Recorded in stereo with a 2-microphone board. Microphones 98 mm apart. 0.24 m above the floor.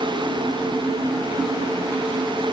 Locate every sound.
Only background noise.